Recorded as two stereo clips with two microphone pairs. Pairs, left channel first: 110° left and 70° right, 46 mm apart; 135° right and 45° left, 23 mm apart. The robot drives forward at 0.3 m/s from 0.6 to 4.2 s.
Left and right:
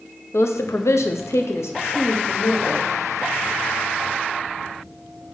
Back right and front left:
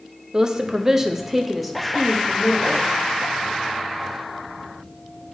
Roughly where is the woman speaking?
Left.